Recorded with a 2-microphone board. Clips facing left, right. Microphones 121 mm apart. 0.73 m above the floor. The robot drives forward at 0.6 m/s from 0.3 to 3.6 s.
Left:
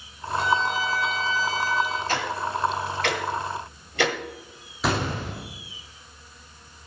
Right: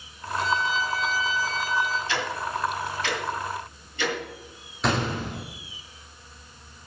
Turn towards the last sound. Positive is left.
turn(degrees=5)  # may be behind; listen again after turning